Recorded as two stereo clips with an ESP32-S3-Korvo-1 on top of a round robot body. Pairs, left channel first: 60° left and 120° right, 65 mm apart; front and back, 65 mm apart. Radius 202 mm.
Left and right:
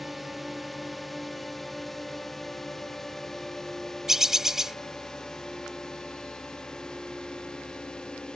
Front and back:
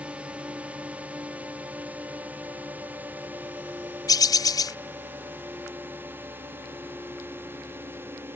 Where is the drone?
155° left; by 8.4 s 135° left.